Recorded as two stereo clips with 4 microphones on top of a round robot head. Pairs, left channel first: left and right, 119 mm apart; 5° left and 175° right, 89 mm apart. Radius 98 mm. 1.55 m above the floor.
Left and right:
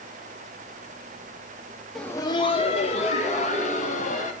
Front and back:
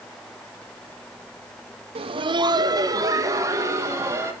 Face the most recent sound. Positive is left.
turn(degrees=125)